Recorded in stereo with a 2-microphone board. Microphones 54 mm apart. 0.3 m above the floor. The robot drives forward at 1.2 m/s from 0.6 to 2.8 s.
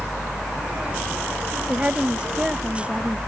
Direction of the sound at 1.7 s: 25° right (ahead or behind).